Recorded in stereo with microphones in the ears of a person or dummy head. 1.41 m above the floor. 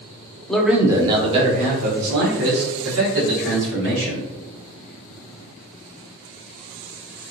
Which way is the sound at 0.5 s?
5° left (ahead or behind).